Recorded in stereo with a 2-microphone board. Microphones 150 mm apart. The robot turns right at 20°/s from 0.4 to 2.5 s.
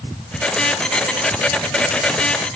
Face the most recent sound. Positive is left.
No sound to turn to.